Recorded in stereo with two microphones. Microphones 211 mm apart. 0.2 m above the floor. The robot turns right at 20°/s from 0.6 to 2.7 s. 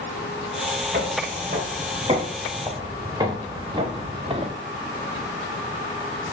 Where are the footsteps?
50° right (ahead or behind), 3.5 m; by 4.5 s 30° right (ahead or behind), 1.7 m.